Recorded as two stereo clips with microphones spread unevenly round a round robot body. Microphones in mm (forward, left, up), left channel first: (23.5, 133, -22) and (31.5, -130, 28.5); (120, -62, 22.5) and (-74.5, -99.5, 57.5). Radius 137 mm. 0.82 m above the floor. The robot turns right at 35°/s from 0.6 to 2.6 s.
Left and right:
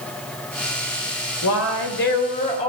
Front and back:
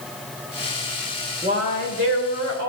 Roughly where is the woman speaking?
Behind left.